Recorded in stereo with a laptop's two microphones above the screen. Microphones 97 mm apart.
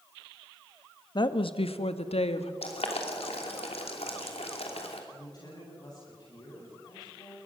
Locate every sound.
1.1 s a woman speaking: 45° left (ahead or behind), 1.2 m; by 2.5 s 80° left, 1.7 m
2.6 s boiling: 80° left, 3 m
5.1 s a woman speaking: 40° left (ahead or behind), 9 m